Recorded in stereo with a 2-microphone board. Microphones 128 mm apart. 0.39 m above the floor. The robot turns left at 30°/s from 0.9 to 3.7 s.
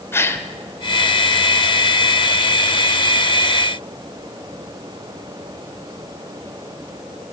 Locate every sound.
0.1 s a gasp: 20° left (ahead or behind), 0.6 m